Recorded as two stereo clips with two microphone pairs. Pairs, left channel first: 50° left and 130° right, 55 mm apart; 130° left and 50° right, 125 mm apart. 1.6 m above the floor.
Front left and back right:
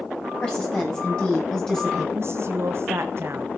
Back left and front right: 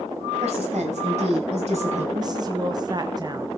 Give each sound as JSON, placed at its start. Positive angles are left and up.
{"t": 0.4, "sound": "a woman speaking", "azimuth_deg": -25, "distance_m": 10.0}
{"t": 2.1, "sound": "a woman speaking", "azimuth_deg": -105, "distance_m": 0.9}